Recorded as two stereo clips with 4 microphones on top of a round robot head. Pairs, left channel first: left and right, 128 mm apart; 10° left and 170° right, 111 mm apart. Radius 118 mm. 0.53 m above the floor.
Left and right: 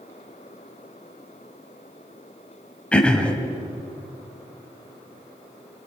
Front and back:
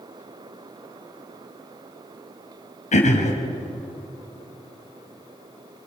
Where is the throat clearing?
10° left, 3 m.